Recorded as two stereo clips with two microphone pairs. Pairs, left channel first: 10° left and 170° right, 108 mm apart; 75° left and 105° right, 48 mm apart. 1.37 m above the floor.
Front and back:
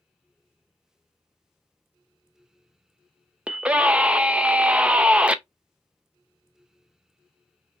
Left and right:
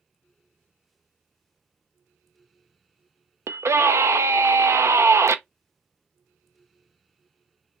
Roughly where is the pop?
I don't hear a pop.